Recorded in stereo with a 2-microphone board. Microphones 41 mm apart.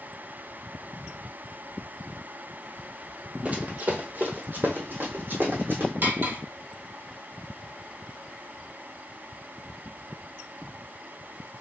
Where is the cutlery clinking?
55° right (ahead or behind), 1.7 m.